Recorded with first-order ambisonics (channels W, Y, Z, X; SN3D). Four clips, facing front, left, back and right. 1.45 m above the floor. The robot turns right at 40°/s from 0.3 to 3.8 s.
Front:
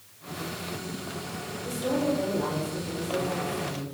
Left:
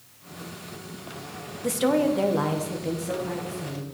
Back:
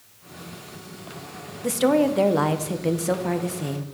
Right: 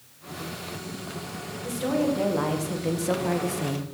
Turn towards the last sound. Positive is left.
turn(degrees=-125)